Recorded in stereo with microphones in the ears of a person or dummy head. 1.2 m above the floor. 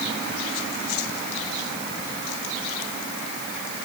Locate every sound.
Only background noise.